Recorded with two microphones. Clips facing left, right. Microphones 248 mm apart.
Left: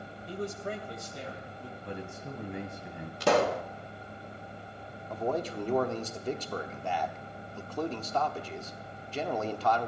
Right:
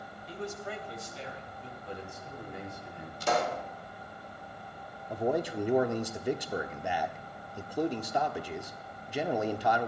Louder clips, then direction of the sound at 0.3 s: Left 3 dB; 55° left (ahead or behind).